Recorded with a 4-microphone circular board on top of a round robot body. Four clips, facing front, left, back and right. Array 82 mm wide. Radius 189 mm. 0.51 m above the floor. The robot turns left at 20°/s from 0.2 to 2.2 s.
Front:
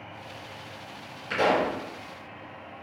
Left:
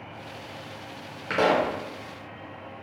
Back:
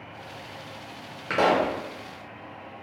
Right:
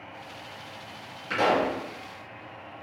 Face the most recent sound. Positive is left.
turn(degrees=125)